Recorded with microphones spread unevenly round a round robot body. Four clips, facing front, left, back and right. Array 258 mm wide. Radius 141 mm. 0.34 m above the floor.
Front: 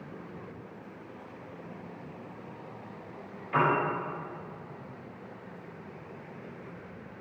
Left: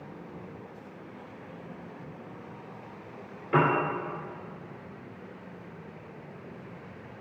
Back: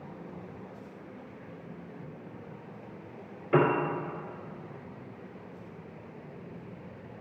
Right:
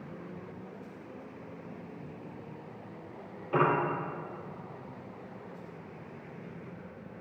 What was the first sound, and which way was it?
A piano, 170° left.